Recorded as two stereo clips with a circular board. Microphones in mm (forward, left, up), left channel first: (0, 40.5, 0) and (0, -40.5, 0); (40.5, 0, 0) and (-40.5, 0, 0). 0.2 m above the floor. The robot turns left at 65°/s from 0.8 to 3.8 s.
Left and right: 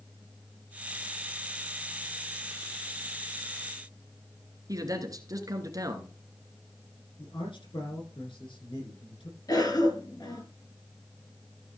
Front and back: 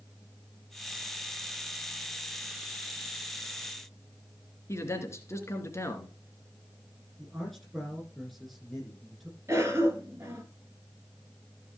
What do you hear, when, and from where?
4.7 s a man speaking: 50° right, 2.5 m
7.2 s a man speaking: 90° left, 8.5 m
9.5 s a cough: 125° left, 3.5 m